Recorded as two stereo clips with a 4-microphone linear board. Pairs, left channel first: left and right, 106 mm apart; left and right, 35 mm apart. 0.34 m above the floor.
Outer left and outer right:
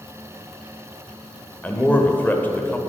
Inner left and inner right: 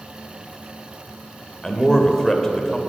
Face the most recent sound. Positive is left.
turn(degrees=15)  # may be behind; listen again after turning